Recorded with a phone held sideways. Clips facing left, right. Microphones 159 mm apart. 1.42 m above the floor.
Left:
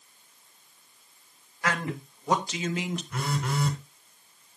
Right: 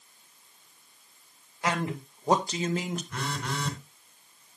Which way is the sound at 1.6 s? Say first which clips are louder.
Right 1 dB; 20° right (ahead or behind).